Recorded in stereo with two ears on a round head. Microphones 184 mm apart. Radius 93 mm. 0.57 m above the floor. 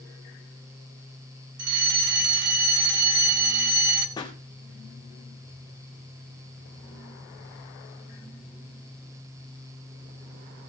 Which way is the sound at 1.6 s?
60° right (ahead or behind).